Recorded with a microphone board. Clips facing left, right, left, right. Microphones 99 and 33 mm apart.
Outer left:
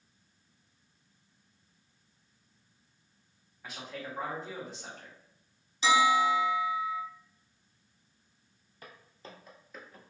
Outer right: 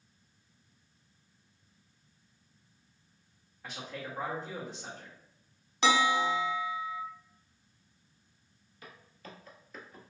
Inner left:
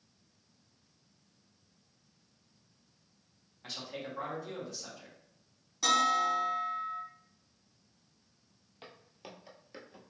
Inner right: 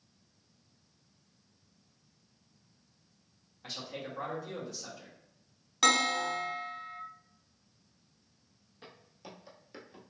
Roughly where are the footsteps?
Left.